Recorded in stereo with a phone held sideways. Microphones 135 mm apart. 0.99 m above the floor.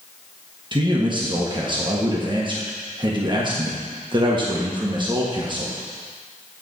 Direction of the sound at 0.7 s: 35° right (ahead or behind).